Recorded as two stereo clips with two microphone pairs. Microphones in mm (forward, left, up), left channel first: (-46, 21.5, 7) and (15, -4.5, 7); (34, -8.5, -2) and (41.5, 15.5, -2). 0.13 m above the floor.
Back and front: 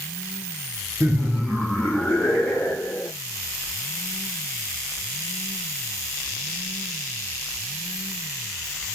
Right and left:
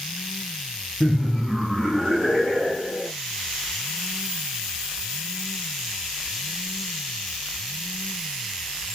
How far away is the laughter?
About 1.4 m.